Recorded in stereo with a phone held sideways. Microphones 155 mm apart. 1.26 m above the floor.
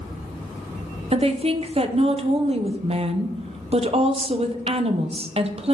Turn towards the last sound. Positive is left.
turn(degrees=-40)  # may be behind; listen again after turning